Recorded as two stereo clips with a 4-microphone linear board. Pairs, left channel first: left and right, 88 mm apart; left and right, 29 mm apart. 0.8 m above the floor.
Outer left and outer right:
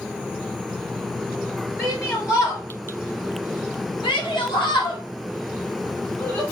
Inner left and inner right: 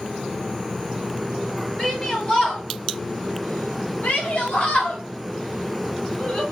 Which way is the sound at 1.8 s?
30° left (ahead or behind).